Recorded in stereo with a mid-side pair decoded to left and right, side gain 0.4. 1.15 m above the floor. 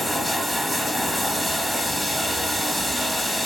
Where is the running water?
10° right, 0.9 m.